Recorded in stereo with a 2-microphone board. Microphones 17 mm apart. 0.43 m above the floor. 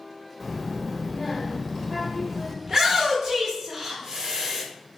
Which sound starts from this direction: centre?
A child speaking, at 0.4 s.